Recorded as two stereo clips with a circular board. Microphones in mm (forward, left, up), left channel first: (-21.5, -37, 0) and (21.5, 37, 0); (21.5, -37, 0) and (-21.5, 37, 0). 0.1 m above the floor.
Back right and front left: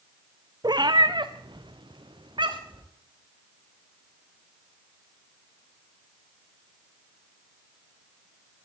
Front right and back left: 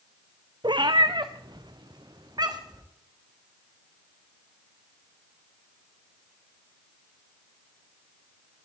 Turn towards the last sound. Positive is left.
turn(degrees=80)